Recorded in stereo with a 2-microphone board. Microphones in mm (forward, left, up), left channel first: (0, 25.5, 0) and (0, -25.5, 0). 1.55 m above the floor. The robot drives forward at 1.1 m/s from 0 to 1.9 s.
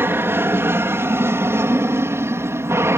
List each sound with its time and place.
0.0 s an aircraft: 50° right (ahead or behind); by 3.0 s 60° right (ahead or behind)